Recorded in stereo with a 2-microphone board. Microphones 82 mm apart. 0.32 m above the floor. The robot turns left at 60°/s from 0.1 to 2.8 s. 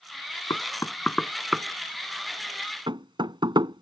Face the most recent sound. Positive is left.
turn(degrees=-70)  # may be behind; listen again after turning